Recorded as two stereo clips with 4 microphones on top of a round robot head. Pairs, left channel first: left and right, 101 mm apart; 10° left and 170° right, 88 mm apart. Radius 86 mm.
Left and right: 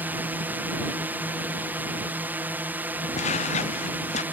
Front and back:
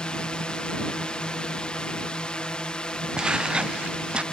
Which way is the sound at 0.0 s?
50° right.